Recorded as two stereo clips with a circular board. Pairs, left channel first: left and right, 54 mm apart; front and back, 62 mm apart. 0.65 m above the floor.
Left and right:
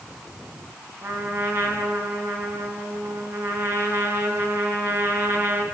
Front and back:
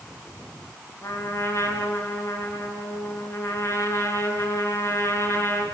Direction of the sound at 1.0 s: 45° right.